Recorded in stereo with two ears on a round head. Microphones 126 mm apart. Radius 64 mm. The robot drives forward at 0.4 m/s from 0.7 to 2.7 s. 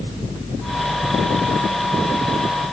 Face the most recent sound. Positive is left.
No sound to turn to.